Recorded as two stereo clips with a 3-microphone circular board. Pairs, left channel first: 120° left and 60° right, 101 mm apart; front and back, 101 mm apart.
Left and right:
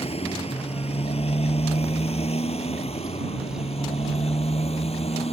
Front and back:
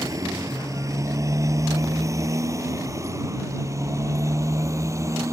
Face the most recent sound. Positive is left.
turn(degrees=120)